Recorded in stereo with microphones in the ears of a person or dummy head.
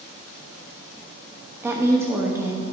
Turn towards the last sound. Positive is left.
turn(degrees=-10)  # may be behind; listen again after turning